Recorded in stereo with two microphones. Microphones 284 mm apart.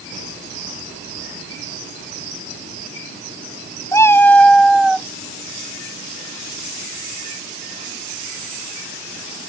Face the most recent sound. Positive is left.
turn(degrees=-5)  # may be behind; listen again after turning